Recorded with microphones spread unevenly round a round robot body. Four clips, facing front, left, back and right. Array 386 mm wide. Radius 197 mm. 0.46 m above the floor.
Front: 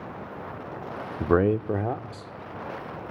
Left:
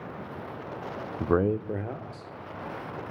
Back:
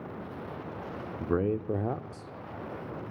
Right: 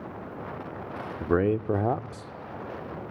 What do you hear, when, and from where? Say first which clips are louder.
1.2 s a man speaking: right 1 dB, front 7 dB; 15° left, 0.8 m; by 2.3 s 90° right, 1.2 m